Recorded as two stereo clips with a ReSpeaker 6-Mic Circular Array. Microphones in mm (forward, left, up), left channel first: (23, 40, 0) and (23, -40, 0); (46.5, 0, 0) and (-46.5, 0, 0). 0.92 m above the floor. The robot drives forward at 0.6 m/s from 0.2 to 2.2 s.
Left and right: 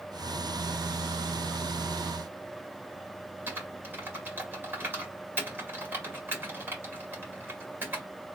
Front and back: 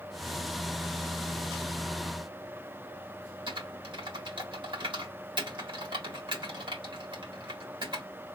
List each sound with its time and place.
3.5 s typing on a keyboard: 155° right, 1.7 m